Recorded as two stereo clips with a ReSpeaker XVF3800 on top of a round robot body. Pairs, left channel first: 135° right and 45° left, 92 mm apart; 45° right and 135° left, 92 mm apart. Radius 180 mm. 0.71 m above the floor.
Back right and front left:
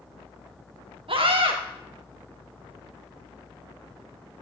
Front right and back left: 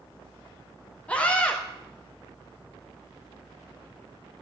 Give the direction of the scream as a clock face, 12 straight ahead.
11 o'clock.